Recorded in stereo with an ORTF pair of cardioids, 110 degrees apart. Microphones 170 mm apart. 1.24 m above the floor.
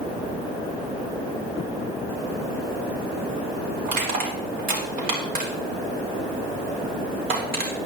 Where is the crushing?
60° right, 4 m.